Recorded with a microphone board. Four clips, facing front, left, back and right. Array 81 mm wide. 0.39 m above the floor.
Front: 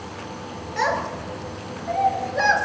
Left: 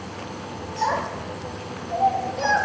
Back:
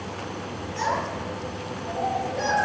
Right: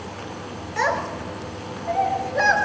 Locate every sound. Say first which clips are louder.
0.8 s a child speaking: right 1 dB, front 3 dB; 65° right, 5 m; by 2.5 s 55° right, 5.5 m